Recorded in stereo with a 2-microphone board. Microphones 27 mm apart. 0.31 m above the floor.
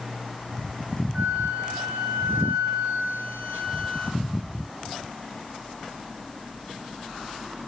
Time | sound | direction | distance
1.1 | a flute | 80° right | 3 m